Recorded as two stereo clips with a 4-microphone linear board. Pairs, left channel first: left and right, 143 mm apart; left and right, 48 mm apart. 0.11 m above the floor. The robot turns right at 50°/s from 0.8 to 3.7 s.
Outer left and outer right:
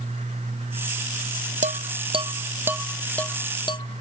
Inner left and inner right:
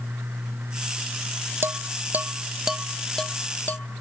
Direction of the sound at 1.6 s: 60° right (ahead or behind).